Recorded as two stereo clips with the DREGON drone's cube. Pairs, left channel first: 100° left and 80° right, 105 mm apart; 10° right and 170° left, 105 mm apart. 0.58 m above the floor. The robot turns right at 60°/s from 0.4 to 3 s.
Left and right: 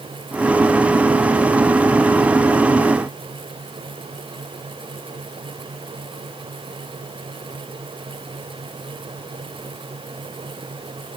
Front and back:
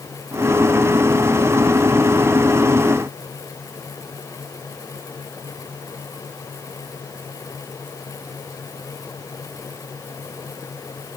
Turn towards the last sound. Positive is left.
No sound to turn to.